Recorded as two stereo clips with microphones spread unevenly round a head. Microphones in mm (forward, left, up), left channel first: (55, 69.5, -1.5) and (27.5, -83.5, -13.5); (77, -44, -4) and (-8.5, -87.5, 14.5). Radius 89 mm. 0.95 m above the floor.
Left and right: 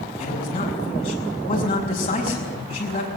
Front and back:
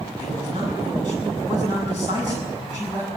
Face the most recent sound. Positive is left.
turn(degrees=140)